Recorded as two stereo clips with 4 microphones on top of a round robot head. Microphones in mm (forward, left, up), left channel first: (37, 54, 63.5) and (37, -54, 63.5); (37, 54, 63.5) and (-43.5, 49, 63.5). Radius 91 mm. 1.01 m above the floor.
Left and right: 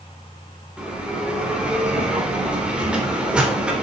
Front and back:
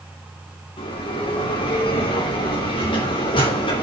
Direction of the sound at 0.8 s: 10° right.